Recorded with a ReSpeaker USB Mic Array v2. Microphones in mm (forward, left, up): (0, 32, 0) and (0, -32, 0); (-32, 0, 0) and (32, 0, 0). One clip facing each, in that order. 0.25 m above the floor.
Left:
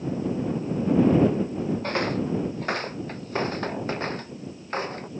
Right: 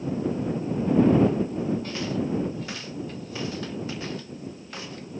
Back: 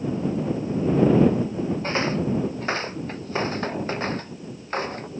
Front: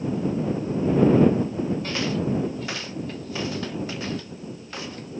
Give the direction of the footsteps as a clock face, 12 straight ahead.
8 o'clock.